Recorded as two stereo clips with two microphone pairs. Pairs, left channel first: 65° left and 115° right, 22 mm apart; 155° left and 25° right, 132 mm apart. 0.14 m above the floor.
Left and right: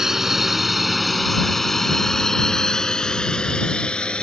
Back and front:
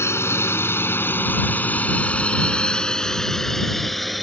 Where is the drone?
160° right; by 4.2 s 65° left.